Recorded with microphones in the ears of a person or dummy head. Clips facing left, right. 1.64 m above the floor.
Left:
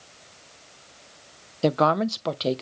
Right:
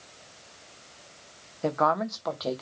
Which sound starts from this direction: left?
A woman speaking, at 1.6 s.